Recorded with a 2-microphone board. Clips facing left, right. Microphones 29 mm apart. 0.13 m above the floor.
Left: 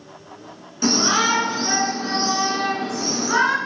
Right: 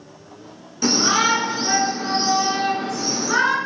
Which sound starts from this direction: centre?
A shout, at 0.8 s.